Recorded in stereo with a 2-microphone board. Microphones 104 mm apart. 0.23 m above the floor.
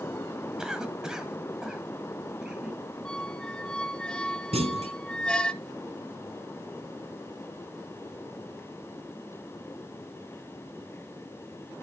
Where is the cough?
5° right (ahead or behind), 1.6 m.